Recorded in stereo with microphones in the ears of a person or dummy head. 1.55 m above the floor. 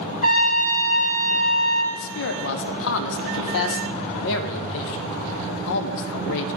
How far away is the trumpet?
About 2.5 m.